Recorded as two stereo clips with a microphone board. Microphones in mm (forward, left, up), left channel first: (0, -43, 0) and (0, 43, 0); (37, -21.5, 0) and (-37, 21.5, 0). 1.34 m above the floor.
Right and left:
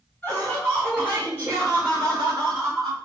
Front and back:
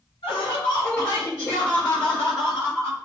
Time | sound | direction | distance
0.2 | laughter | 15° right | 0.9 m